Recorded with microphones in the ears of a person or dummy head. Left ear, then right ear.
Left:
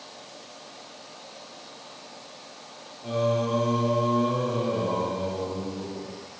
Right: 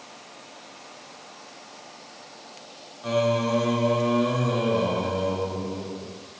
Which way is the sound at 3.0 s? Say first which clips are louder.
Right 2 dB; 65° right (ahead or behind).